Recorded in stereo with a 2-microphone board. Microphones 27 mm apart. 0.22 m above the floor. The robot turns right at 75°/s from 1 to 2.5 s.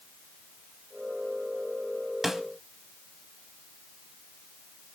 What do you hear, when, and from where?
2.2 s a snare drum: 10° right (ahead or behind), 0.9 m; by 2.4 s 15° right (ahead or behind), 0.9 m